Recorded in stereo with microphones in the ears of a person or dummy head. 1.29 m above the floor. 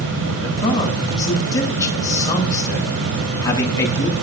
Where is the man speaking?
25° left (ahead or behind), 9.5 m.